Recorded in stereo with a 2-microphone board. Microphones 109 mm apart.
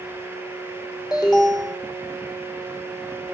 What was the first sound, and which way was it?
An alarm, 35° left (ahead or behind).